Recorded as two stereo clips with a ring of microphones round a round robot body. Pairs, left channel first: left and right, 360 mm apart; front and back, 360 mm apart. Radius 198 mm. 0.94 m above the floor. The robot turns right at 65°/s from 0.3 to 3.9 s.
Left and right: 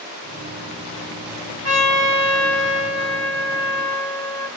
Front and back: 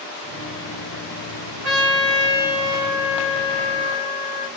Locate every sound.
1.6 s a trumpet: 145° right, 2.0 m; by 4.5 s straight ahead, 2.0 m